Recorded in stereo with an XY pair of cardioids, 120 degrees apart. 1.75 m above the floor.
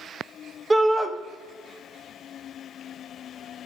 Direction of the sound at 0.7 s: 20° right.